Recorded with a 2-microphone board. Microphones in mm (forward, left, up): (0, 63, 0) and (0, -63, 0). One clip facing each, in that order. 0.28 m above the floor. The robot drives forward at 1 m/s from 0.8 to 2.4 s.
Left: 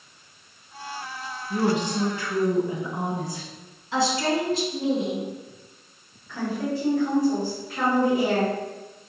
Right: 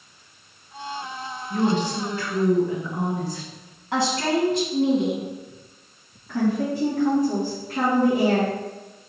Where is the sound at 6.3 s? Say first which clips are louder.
Right 5 dB; 55° right (ahead or behind), 2.5 m.